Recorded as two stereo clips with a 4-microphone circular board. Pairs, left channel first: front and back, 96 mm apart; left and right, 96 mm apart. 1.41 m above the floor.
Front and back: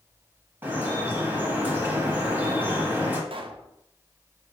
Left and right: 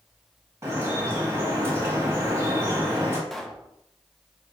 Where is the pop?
175° left, 0.5 m.